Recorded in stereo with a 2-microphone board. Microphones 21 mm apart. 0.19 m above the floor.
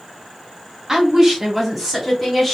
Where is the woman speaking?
25° right (ahead or behind), 1.2 m; by 2.5 s 15° left (ahead or behind), 1.2 m.